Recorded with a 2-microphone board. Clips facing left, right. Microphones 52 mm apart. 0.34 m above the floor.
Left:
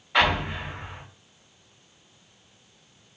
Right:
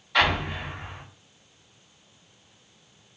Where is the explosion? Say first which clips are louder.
Left 1 dB; 30° left (ahead or behind), 1.9 m.